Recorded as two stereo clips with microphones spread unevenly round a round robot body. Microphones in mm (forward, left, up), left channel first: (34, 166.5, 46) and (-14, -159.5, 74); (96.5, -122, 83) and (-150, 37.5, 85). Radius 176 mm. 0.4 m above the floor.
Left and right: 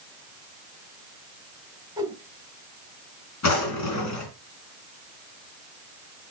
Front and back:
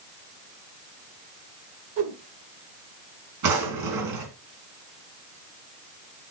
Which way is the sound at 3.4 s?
125° left.